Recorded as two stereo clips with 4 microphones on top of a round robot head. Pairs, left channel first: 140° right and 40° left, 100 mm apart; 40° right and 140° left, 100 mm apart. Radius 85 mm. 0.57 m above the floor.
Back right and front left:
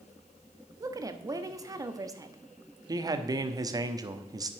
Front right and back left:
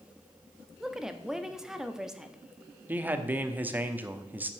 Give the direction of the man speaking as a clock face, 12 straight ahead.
10 o'clock.